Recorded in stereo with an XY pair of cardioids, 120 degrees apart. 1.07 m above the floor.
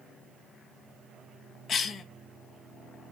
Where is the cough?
45° left, 0.8 m.